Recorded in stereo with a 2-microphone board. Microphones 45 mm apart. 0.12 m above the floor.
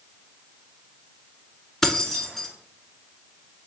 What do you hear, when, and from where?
1.8 s keys jangling: 10° left (ahead or behind), 0.9 m